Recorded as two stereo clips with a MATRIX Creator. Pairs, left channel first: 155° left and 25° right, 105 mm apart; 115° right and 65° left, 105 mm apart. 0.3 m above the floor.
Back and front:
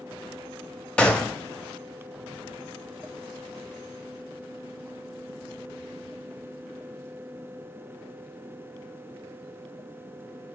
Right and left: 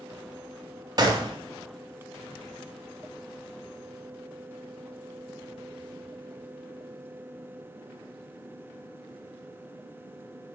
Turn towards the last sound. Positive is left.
turn(degrees=85)